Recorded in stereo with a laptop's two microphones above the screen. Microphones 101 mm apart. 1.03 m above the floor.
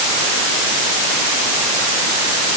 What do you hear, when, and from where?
Only background noise.